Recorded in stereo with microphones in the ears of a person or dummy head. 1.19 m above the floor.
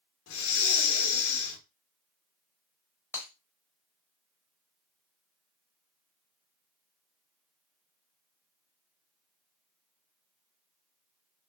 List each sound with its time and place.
0.3 s breathing: 75° left (ahead or behind), 0.7 m
3.1 s breaking glass: 10° left (ahead or behind), 0.8 m